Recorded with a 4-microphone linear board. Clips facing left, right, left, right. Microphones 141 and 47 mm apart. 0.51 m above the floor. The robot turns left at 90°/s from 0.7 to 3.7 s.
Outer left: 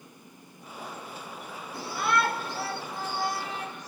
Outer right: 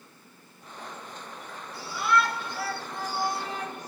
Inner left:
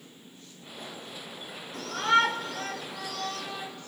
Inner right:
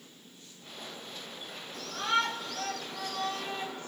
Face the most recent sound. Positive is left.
turn(degrees=-60)